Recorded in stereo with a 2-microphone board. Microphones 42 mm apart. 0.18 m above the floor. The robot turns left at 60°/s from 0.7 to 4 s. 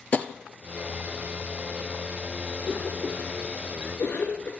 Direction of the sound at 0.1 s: 35° left (ahead or behind).